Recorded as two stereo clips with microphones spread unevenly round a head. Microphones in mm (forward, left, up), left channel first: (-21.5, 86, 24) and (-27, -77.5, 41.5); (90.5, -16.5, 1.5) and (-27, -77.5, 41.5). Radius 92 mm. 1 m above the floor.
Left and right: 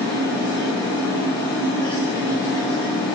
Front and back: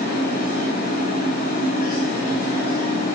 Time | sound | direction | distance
0.0 | a machine running | 10° left | 1.0 m